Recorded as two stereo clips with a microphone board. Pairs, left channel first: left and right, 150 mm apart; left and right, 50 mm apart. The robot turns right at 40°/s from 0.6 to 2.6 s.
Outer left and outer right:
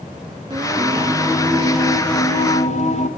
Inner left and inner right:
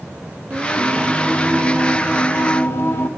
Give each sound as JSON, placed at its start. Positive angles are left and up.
{"t": 0.5, "sound": "singing", "azimuth_deg": -30, "distance_m": 1.3}